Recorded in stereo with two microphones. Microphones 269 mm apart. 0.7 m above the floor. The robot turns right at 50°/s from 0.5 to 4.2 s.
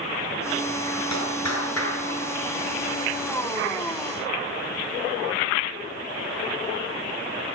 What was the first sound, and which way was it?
A clap, 85° left.